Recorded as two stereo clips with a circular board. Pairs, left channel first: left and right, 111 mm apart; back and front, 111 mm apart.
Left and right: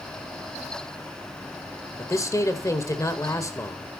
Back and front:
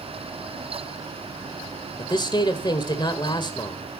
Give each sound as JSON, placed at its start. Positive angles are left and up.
{"t": 2.0, "sound": "a man speaking", "azimuth_deg": 145, "distance_m": 1.8}